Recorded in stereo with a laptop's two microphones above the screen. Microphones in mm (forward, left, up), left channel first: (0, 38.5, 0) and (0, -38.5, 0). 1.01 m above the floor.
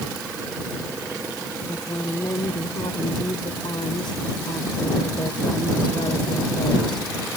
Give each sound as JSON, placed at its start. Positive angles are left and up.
{"t": 1.7, "sound": "a woman speaking", "side_deg": 80}